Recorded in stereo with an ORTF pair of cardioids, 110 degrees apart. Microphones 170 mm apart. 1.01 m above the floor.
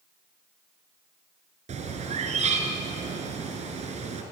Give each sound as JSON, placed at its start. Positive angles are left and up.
{"t": 1.7, "sound": "a bird", "azimuth_deg": -45, "distance_m": 4.5}